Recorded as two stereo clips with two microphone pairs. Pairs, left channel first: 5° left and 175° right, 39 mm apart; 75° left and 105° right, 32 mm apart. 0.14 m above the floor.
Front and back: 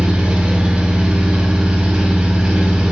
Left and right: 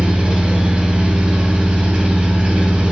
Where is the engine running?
125° right, 0.8 m.